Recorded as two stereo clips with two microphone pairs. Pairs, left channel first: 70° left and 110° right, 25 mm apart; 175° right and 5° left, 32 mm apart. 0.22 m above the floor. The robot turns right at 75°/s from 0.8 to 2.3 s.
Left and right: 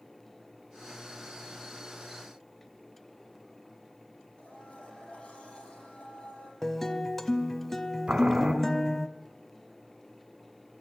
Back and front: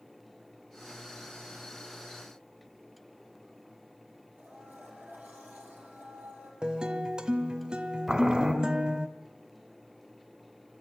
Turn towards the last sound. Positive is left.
turn(degrees=-70)